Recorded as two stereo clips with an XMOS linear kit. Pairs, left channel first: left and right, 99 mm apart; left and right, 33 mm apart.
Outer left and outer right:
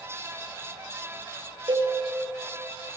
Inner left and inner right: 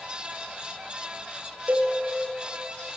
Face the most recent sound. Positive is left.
turn(degrees=-55)  # may be behind; listen again after turning